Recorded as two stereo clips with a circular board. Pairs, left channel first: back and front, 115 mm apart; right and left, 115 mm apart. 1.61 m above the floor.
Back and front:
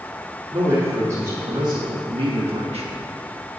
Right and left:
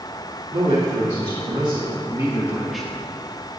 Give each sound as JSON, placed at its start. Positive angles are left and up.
{"t": 0.5, "sound": "a man speaking", "azimuth_deg": 70, "distance_m": 3.0}